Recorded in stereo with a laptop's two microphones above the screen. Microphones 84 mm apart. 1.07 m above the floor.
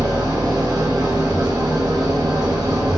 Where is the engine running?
50° right (ahead or behind), 0.7 m.